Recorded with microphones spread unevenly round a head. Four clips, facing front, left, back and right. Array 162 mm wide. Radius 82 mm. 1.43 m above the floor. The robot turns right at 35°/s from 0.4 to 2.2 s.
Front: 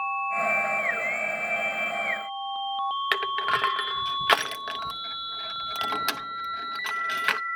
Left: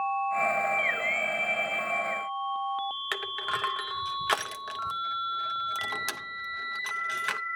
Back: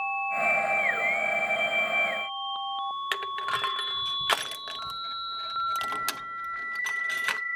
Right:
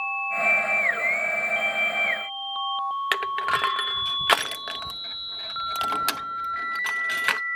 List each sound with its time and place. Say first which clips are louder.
3.1 s crushing: right 9 dB, front 4 dB; 55° right, 0.7 m